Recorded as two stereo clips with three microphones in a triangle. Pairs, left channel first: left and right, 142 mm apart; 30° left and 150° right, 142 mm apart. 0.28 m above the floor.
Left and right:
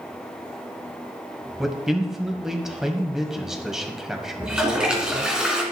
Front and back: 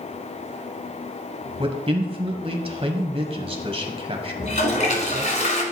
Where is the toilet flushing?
5° right, 1.8 m.